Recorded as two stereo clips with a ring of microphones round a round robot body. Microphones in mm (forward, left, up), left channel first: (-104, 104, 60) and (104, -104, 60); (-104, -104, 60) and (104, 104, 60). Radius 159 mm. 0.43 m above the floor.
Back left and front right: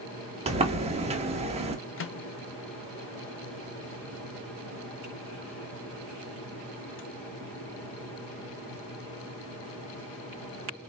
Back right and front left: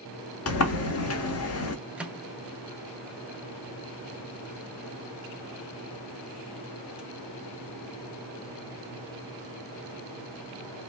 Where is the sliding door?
110° right, 0.9 m.